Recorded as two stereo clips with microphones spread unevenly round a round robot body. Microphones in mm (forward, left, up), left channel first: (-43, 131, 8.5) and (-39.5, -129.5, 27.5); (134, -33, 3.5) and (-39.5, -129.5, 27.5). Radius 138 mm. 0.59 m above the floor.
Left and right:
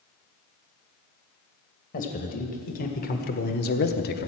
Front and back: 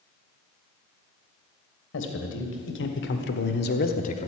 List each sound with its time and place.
1.9 s a man speaking: 30° left, 2.5 m; by 4.3 s 65° left, 0.9 m